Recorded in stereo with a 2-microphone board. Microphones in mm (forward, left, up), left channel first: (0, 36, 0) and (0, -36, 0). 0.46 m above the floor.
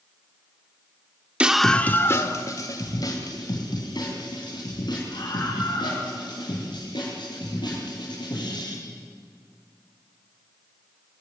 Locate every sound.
1.4 s a scream: 15° right (ahead or behind), 0.9 m; by 8.7 s 80° left, 10.5 m